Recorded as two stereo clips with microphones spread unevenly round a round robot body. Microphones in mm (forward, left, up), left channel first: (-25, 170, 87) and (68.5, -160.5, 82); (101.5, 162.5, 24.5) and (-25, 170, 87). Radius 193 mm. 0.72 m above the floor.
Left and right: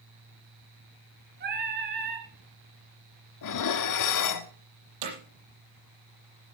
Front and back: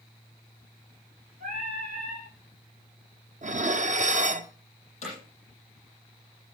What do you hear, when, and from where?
1.4 s singing: 140° right, 3 m
3.4 s dishes clattering: 140° left, 1.3 m
5.0 s hammering: 60° right, 7.5 m